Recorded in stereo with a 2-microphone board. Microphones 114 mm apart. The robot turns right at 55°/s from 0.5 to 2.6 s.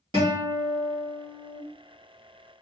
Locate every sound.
0.1 s a guitar: 110° right, 1.8 m; by 1.6 s 50° right, 1.8 m